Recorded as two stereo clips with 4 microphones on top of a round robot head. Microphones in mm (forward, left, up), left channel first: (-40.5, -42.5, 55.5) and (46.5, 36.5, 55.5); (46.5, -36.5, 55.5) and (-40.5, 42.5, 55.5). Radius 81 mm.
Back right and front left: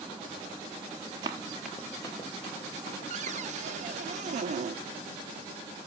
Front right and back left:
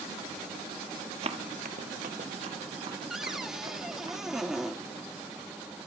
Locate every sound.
1.2 s running footsteps: 100° left, 1.1 m; by 4.1 s 165° right, 3.5 m
3.1 s a cupboard door: 50° left, 0.9 m